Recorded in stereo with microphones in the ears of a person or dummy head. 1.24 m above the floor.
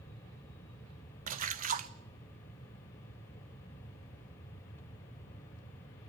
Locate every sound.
1.3 s a splash: 35° right (ahead or behind), 0.9 m